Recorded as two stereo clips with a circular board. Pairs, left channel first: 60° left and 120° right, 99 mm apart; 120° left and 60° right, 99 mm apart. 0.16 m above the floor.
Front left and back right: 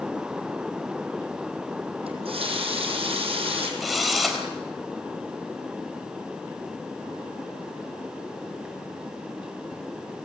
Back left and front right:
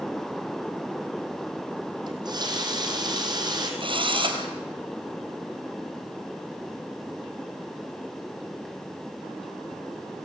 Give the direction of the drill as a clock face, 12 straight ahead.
1 o'clock.